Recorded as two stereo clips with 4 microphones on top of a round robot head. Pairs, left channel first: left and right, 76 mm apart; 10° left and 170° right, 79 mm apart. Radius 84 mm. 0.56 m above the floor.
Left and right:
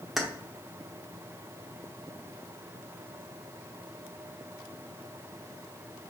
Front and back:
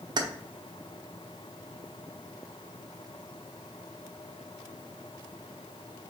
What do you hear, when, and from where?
0.2 s keys jangling: 175° right, 1.1 m